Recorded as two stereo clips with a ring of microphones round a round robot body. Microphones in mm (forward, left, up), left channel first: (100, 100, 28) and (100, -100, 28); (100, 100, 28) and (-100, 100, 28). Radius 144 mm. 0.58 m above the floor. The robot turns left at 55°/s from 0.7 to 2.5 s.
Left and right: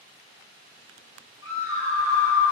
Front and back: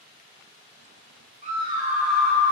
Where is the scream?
130° left, 4 m; by 2.5 s 70° left, 4 m.